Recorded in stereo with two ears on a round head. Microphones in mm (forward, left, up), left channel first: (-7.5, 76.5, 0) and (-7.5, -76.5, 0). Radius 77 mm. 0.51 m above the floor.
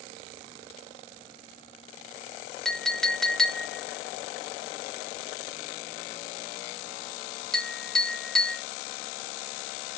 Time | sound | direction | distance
2.6 | a clink | 5° left (ahead or behind) | 0.7 m